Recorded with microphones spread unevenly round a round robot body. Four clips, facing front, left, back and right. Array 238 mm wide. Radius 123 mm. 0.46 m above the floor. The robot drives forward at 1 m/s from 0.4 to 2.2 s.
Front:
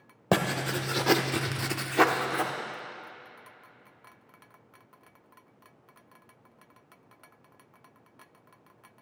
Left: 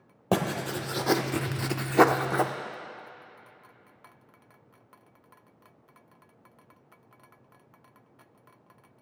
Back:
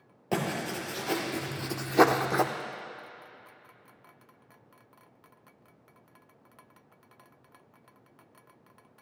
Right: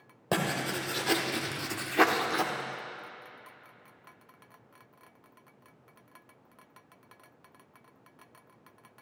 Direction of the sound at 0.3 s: 15° left.